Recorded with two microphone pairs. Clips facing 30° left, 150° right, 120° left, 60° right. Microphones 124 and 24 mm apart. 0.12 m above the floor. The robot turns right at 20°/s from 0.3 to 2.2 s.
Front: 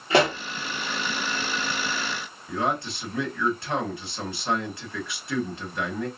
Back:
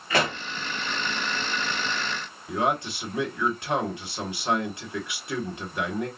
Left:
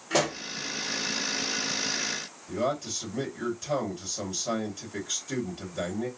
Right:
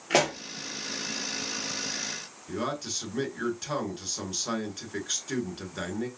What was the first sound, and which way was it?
A pop, 30° right.